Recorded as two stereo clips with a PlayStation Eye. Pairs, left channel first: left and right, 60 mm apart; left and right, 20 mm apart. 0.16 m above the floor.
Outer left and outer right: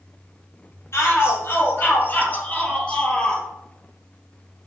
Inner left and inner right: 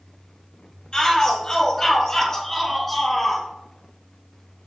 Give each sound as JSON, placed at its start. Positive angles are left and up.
{"t": 0.9, "sound": "a shout", "side_deg": 50, "distance_m": 4.0}